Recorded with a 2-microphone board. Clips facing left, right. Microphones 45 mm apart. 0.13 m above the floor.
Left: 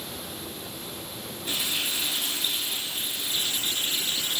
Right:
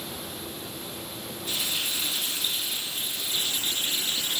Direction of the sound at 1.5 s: 30° left (ahead or behind).